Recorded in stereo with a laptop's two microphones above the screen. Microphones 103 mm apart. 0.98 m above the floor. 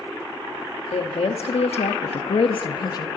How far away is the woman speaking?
About 1.4 m.